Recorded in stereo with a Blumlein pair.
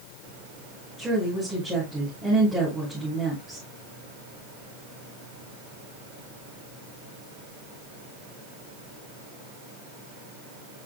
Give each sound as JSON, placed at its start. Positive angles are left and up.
{"t": 1.0, "sound": "a woman speaking", "azimuth_deg": -10, "distance_m": 6.5}